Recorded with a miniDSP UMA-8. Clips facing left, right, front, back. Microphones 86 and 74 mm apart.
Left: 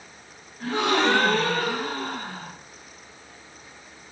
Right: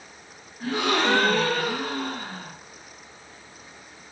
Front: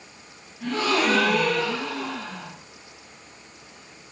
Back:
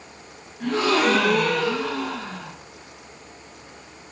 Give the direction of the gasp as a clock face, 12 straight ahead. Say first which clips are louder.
Left 1 dB, back 3 dB; 6 o'clock.